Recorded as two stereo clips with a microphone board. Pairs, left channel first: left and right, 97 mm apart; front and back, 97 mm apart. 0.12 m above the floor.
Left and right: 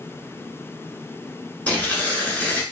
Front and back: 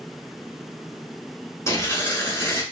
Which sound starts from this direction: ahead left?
Tearing paper, at 1.7 s.